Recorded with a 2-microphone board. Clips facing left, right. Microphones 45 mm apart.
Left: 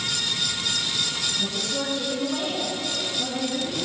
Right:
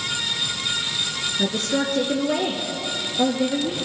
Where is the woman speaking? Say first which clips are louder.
Right 5 dB; 55° right (ahead or behind), 2.5 m; by 3.8 s 70° right (ahead or behind), 4.5 m.